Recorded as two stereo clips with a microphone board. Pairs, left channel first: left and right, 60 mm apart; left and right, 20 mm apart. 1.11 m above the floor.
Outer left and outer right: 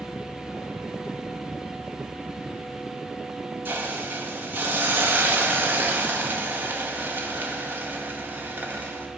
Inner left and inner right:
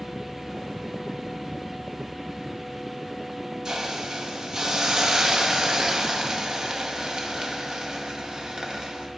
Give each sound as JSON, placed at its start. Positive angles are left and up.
{"t": 3.6, "sound": "a hiss", "side_deg": -35, "distance_m": 1.8}